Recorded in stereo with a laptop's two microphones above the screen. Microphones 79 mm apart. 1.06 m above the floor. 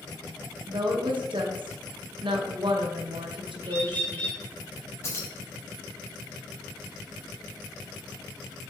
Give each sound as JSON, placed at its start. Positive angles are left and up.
{"t": 0.7, "sound": "a woman speaking", "side_deg": -75, "distance_m": 0.7}
{"t": 3.6, "sound": "a bird", "side_deg": 30, "distance_m": 1.9}
{"t": 5.0, "sound": "keys jangling", "side_deg": 35, "distance_m": 0.9}